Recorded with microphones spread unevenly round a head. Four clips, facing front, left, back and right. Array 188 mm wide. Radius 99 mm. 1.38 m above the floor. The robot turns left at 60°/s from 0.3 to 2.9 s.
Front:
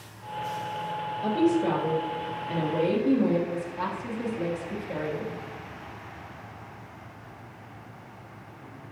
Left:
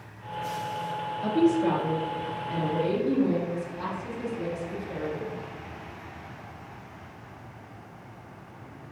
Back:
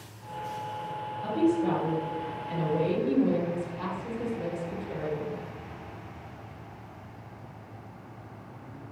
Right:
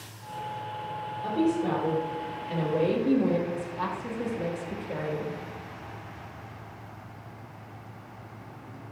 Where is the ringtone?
I don't hear a ringtone.